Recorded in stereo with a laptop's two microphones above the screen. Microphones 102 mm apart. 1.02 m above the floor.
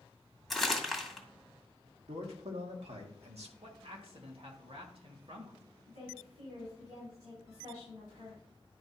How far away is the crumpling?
About 2 m.